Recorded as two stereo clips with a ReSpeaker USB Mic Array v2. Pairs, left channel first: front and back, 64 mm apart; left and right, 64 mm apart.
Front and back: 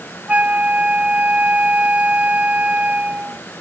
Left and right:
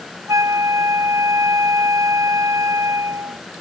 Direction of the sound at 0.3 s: 115° right.